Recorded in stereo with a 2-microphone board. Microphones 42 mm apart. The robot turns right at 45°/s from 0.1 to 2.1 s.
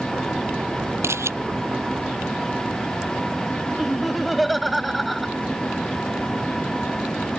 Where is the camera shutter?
80° right; by 1.3 s 85° right.